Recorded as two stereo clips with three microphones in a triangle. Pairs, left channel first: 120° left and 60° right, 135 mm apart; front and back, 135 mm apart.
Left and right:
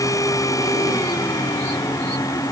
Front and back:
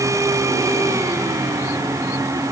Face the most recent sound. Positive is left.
No sound to turn to.